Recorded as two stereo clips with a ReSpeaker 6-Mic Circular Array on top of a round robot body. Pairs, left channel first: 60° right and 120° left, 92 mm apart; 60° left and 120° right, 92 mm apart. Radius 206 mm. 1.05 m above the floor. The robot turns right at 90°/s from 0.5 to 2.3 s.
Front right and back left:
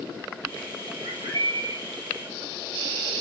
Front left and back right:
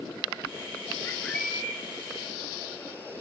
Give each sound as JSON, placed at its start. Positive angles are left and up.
{"t": 1.0, "sound": "a bird", "azimuth_deg": 115, "distance_m": 1.8}